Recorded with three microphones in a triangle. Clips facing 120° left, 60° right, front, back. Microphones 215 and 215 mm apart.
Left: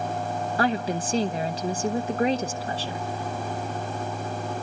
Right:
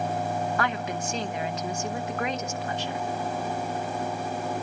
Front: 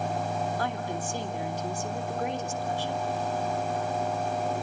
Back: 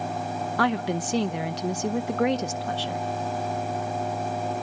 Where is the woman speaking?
175° left, 0.8 m.